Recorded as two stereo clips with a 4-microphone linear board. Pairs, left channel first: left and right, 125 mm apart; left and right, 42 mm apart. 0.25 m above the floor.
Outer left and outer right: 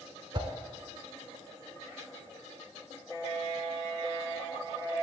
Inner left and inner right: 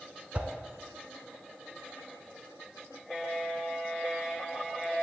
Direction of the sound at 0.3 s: 40° right (ahead or behind).